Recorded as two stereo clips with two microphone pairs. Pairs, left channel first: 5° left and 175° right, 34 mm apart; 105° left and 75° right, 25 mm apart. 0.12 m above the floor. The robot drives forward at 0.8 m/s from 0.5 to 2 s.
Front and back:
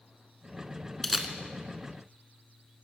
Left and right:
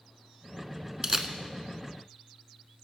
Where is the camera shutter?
65° right, 0.7 m; by 1.3 s 125° right, 0.7 m.